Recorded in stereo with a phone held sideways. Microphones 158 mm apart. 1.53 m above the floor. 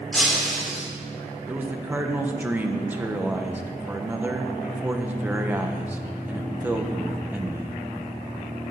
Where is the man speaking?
10° right (ahead or behind), 1.1 m.